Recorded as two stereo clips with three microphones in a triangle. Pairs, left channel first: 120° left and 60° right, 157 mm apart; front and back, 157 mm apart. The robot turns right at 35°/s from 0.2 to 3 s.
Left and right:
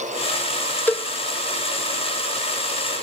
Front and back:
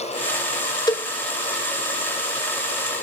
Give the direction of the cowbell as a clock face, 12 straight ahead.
11 o'clock.